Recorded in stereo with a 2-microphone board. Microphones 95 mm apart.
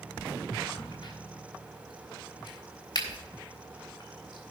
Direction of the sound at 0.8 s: 50° left (ahead or behind).